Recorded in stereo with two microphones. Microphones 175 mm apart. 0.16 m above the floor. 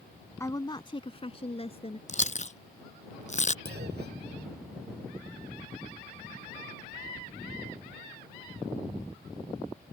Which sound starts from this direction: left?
Chewing, at 2.1 s.